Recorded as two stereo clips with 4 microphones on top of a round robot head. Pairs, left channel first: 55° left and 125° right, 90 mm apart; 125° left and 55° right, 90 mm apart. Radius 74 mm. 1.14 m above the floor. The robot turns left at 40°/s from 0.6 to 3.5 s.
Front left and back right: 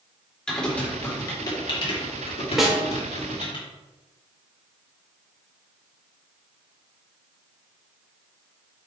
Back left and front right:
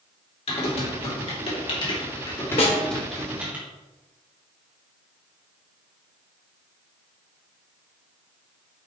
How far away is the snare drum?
About 2.0 m.